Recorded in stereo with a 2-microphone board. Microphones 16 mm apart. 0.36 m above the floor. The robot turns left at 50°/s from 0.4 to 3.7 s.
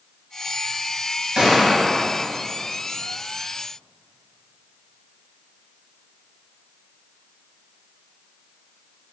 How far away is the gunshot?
About 1.8 m.